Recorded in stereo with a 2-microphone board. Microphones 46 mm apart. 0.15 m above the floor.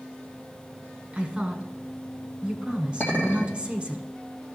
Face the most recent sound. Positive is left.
turn(degrees=35)  # may be behind; listen again after turning